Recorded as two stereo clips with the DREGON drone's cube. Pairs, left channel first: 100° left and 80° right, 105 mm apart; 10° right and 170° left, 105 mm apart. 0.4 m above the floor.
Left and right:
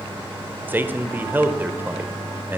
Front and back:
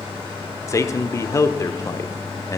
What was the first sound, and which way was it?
A man speaking, 30° right.